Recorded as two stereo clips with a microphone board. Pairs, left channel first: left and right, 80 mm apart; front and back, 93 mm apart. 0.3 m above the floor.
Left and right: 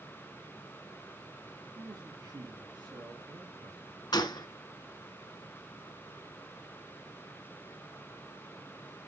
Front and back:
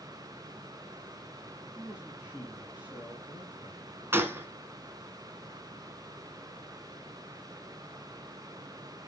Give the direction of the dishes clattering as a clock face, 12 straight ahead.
No dishes clattering in this recording.